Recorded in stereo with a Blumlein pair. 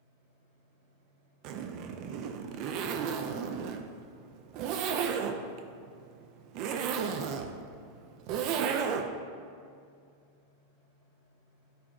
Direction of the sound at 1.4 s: 40° right.